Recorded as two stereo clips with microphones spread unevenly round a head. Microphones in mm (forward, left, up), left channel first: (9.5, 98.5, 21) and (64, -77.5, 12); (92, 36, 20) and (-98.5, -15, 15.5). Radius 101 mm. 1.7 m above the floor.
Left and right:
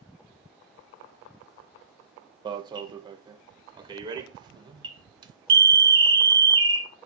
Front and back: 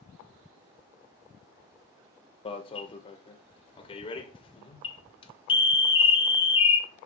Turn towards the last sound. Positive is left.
turn(degrees=-30)